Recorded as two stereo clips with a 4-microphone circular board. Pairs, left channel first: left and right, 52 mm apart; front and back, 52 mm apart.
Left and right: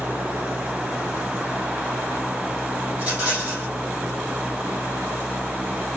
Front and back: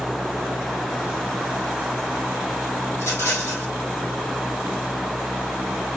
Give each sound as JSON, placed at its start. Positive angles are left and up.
{"t": 2.9, "sound": "a rattle", "azimuth_deg": -30, "distance_m": 2.0}